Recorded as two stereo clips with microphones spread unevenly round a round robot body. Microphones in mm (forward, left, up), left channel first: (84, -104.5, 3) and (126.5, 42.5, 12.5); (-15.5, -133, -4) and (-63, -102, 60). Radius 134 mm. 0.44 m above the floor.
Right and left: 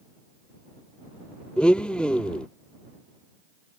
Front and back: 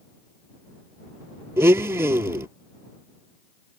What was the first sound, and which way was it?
A blender, 165° left.